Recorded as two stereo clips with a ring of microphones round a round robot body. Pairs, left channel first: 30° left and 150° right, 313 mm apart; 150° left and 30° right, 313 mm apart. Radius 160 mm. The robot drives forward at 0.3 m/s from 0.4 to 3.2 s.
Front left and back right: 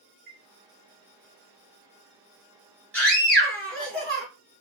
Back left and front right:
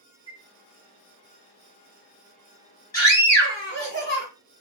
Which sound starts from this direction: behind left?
A scream, at 2.9 s.